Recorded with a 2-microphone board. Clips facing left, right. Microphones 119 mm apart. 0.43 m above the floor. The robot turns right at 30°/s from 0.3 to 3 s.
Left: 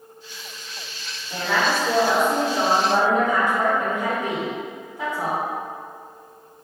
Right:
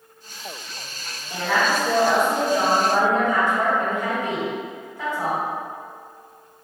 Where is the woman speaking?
5° right (ahead or behind), 1.2 m; by 5.4 s 20° left (ahead or behind), 1.2 m.